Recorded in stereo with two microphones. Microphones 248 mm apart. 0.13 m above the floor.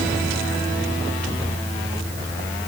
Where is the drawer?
I don't hear a drawer.